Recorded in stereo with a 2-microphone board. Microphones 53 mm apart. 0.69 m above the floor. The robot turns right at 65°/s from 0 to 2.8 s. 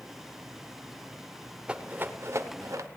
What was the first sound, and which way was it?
A rattle, 20° right (ahead or behind).